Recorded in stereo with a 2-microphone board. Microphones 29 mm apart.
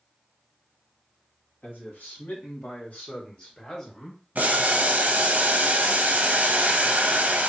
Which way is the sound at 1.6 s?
70° left (ahead or behind).